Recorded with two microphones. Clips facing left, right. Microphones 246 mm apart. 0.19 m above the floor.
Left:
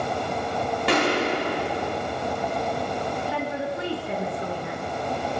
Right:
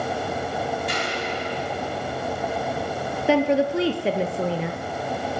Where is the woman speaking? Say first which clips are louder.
Right 9 dB; 70° right (ahead or behind), 4 m.